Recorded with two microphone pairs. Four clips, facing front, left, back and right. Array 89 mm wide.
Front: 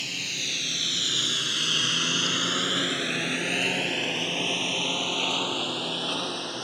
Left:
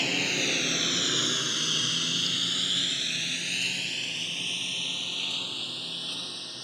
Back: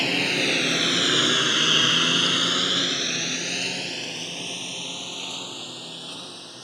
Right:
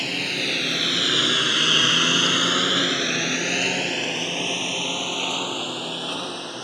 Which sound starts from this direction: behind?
A lawn mower, at 0.0 s.